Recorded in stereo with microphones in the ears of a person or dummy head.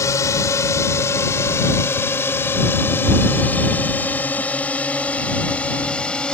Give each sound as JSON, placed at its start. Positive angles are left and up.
{"t": 0.0, "sound": "a drone", "side_deg": 15}